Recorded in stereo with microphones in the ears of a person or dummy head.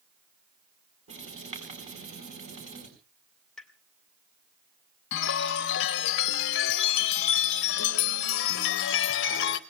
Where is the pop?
Centre (ahead or behind), 1.8 m.